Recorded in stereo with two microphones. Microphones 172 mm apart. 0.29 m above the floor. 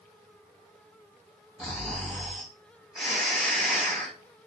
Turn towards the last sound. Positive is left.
turn(degrees=-5)  # may be behind; listen again after turning